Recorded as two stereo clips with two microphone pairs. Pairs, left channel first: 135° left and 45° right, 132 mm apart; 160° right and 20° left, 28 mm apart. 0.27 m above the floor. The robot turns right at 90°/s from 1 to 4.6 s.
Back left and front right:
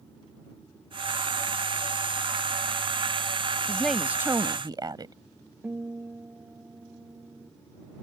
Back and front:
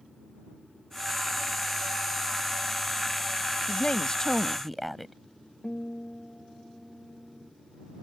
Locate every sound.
3.7 s a woman speaking: 155° right; by 5.2 s 70° right
5.6 s a guitar: 120° right